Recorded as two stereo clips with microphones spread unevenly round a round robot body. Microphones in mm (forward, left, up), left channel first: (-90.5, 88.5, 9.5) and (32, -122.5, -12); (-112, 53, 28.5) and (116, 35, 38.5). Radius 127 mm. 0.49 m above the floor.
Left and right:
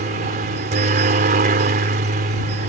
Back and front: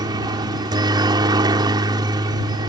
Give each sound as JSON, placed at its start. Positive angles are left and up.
{"t": 0.0, "sound": "a helicopter", "azimuth_deg": -65}